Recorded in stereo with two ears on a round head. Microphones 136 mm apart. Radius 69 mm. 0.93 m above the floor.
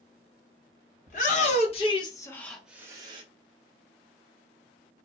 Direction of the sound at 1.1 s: 55° left (ahead or behind).